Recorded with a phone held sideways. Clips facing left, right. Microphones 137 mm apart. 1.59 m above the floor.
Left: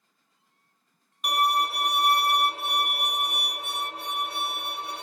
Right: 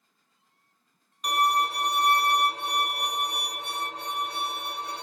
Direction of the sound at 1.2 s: 5° left (ahead or behind).